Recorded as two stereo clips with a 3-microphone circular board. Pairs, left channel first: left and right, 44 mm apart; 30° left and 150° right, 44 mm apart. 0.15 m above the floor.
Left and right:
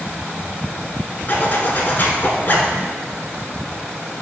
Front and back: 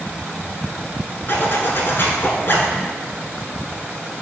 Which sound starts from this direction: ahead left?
A zipper, at 1.3 s.